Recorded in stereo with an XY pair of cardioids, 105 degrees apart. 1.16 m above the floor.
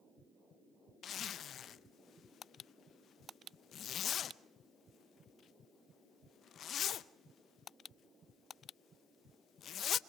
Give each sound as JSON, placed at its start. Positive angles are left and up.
{"t": 1.0, "sound": "a zipper", "azimuth_deg": 60, "distance_m": 0.7}